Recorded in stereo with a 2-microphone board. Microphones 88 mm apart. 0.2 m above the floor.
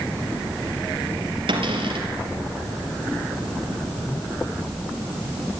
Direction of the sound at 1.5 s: 75° right (ahead or behind).